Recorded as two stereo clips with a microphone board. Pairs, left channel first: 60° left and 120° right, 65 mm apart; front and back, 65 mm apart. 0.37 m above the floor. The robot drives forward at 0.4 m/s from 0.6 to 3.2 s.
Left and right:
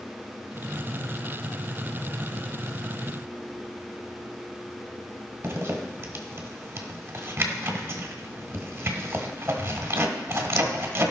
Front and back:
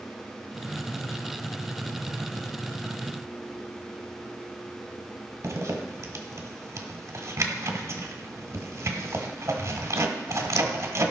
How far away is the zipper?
About 1.6 m.